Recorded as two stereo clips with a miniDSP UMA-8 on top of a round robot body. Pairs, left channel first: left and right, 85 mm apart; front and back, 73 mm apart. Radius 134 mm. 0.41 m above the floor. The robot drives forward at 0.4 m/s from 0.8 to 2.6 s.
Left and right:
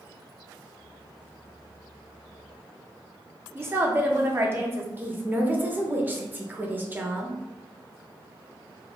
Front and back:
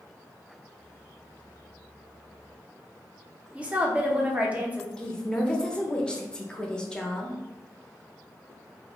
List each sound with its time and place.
3.5 s a woman speaking: 125° right, 0.9 m
5.0 s a woman speaking: 60° right, 0.8 m